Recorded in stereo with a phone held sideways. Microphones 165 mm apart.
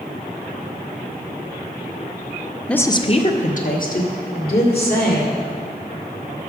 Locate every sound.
2.7 s a woman speaking: 5° left (ahead or behind), 0.6 m; by 5.4 s 70° left (ahead or behind), 3 m